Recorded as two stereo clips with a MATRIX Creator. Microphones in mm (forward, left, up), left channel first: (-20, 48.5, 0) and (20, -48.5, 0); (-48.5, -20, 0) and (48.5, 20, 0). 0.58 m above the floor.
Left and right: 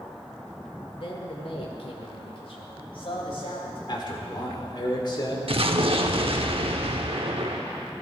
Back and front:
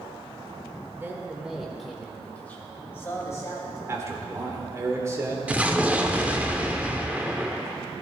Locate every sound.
0.9 s a man speaking: 85° left, 1.8 m; by 3.8 s 145° left, 3.5 m
3.9 s a man speaking: 80° left, 2 m
5.5 s an explosion: 55° right, 0.8 m